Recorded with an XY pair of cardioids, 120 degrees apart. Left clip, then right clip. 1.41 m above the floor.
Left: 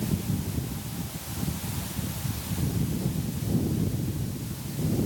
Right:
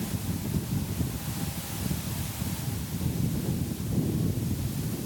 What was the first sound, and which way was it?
Only background noise.